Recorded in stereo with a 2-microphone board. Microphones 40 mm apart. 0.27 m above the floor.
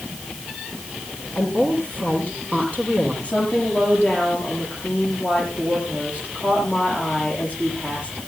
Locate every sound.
1.4 s a woman speaking: 40° left (ahead or behind), 7 m
3.2 s a woman speaking: 35° left (ahead or behind), 8.5 m